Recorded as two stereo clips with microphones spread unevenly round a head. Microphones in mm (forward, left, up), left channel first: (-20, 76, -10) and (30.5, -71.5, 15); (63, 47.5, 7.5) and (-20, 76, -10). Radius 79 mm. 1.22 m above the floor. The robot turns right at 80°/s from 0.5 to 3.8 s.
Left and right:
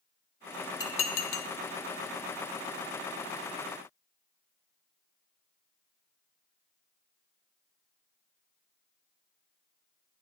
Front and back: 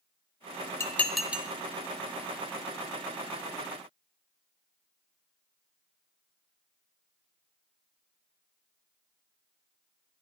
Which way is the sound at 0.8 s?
40° left.